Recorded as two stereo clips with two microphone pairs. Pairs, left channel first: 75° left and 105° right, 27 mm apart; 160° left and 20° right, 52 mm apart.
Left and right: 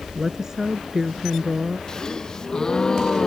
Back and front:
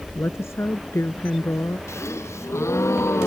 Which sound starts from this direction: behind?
A woman speaking, at 0.1 s.